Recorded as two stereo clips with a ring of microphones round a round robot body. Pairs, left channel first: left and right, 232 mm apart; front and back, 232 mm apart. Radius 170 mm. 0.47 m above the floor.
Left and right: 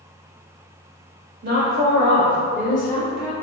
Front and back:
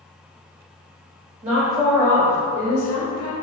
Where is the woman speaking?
130° right, 1.2 m; by 3.3 s 20° left, 1.3 m.